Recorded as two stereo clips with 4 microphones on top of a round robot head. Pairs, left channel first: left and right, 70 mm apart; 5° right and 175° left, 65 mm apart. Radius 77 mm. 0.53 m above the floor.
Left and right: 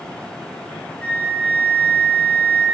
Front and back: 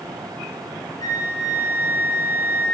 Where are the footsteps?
No footsteps in this recording.